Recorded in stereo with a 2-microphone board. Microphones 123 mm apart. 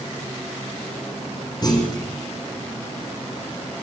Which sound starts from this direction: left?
A clunk, at 1.6 s.